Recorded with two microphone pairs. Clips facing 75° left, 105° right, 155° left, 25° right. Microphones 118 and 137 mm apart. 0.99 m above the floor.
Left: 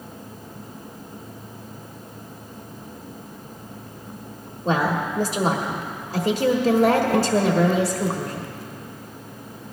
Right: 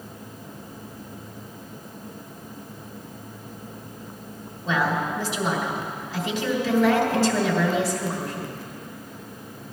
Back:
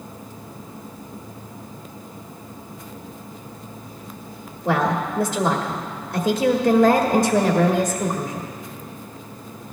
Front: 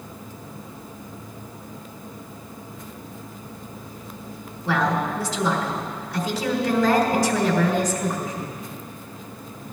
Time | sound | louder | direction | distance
4.7 | a woman speaking | left 2 dB, back 2 dB | 120° left | 1.6 m